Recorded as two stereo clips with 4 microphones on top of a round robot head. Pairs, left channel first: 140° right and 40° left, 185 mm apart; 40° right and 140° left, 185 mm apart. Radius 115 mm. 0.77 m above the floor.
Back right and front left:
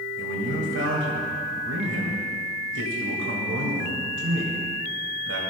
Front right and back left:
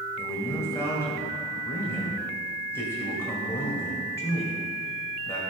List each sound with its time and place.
0.2 s a man speaking: 35° left, 1.9 m